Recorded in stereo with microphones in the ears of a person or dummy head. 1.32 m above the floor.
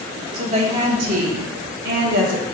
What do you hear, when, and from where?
0.3 s a woman speaking: 35° right (ahead or behind), 1.7 m; by 2.5 s 75° right (ahead or behind), 1.5 m